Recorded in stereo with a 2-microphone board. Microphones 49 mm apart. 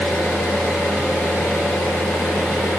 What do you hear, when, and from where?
0.0 s an engine running: 40° left (ahead or behind), 3.5 m